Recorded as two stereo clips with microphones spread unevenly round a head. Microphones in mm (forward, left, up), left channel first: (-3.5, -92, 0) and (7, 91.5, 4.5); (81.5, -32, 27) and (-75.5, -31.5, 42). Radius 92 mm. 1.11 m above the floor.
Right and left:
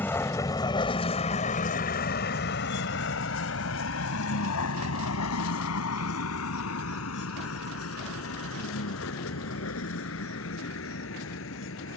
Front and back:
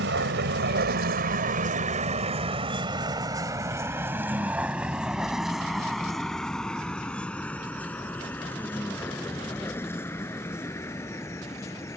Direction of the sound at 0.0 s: 175° right.